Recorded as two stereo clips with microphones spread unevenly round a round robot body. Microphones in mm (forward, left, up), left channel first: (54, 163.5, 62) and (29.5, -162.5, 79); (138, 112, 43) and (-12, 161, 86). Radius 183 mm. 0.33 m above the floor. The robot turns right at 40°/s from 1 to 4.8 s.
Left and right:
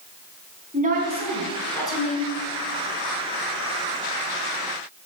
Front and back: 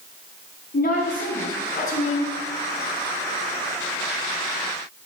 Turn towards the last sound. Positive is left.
turn(degrees=125)